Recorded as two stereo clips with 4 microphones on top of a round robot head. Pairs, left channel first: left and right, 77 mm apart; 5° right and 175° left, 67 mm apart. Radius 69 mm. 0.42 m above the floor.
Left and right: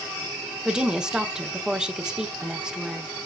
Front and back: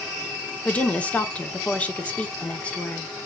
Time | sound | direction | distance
0.7 | a woman speaking | 30° right | 1.2 m